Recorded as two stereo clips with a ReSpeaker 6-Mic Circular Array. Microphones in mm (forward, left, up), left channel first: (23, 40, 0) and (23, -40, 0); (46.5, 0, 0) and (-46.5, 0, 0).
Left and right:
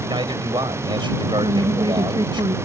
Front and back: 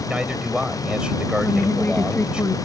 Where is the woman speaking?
70° right.